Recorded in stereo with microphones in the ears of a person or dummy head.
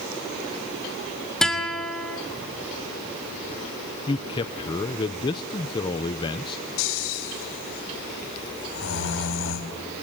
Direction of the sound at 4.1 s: 20° left (ahead or behind).